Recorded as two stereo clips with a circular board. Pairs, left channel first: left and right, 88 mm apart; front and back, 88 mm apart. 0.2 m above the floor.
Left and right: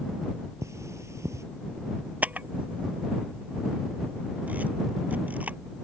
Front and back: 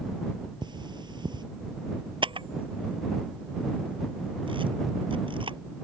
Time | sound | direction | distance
0.6 | cutlery clinking | 145° right | ?
2.2 | a camera shutter | 165° right | ?